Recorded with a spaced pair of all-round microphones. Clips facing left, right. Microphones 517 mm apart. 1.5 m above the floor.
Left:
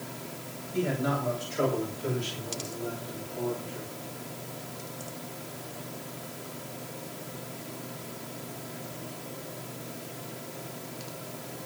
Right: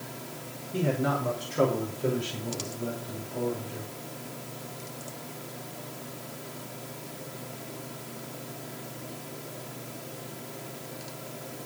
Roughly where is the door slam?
No door slam in this recording.